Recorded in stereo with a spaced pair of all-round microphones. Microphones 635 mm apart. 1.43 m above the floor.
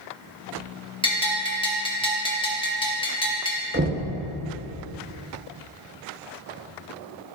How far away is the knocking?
About 0.9 m.